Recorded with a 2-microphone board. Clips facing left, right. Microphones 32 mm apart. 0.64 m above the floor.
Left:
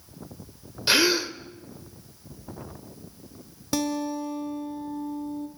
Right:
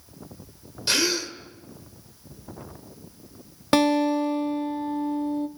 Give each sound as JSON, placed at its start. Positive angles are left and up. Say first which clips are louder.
{"t": 0.9, "sound": "a gasp", "louder": "left 3 dB", "side_deg": 20, "distance_m": 1.2}
{"t": 3.7, "sound": "a guitar", "louder": "right 8 dB", "side_deg": -50, "distance_m": 1.3}